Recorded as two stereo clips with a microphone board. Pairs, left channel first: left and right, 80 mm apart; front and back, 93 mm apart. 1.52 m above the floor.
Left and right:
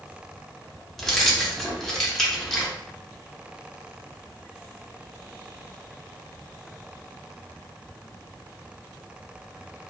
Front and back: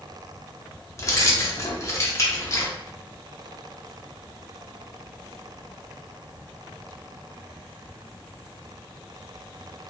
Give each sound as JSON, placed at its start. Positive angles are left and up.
{"t": 1.0, "sound": "keys jangling", "azimuth_deg": 10, "distance_m": 0.6}